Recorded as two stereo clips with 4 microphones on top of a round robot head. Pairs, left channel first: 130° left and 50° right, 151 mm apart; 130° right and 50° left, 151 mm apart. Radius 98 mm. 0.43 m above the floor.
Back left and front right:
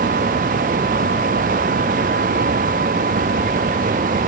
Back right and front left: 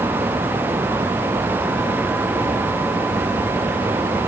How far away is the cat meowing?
No cat meowing in this recording.